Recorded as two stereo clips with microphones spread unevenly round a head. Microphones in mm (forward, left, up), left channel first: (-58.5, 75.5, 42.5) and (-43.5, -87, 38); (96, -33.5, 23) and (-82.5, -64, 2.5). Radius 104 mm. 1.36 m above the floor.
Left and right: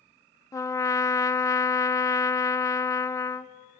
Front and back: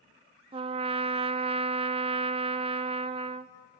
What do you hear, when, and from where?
0.5 s a trumpet: 160° left, 0.6 m